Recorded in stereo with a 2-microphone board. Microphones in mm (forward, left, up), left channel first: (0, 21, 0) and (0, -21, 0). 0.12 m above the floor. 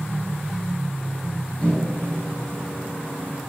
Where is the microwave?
35° left (ahead or behind), 1.7 m.